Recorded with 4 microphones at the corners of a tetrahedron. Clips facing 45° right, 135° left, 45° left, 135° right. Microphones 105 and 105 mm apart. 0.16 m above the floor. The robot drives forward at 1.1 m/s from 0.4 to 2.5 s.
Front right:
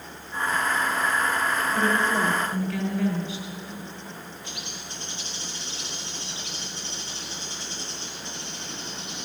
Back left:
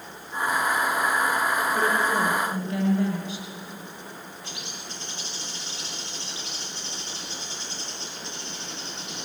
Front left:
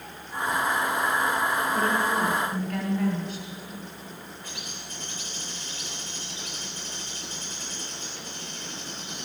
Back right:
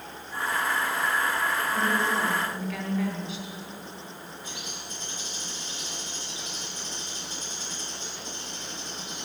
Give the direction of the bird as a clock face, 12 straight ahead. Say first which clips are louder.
Even, back right 1 dB; 7 o'clock.